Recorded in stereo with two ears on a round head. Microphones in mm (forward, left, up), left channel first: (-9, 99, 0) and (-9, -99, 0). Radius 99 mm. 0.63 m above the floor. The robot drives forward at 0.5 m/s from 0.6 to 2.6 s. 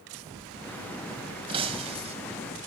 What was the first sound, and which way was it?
Breaking glass, 25° right (ahead or behind).